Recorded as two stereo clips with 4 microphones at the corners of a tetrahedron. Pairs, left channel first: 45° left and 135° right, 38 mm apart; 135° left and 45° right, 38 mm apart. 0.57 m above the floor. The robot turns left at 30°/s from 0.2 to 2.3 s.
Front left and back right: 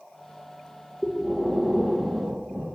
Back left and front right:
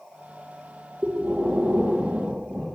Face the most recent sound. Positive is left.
turn(degrees=-90)